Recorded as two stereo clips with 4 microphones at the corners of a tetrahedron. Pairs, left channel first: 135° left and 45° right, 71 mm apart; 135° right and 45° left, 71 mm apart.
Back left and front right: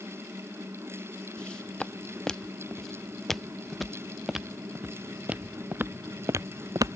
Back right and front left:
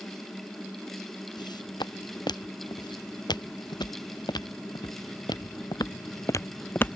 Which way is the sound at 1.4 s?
145° right.